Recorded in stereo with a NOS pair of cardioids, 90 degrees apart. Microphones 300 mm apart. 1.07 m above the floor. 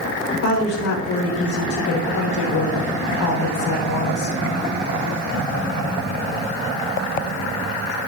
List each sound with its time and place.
0.4 s a woman speaking: 70° left, 4.5 m